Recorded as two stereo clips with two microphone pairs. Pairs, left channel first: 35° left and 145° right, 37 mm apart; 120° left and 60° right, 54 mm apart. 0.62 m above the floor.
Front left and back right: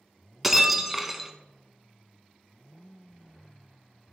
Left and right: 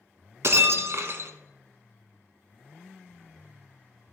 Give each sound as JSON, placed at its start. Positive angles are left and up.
{"t": 0.4, "sound": "breaking glass", "azimuth_deg": -60, "distance_m": 0.8}